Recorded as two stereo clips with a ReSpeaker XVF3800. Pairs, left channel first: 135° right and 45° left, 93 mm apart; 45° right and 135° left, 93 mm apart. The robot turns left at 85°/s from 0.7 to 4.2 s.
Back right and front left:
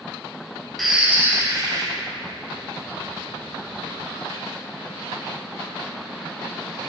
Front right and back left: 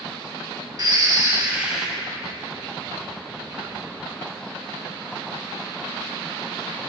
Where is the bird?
135° left, 0.6 m; by 1.9 s 45° left, 0.6 m.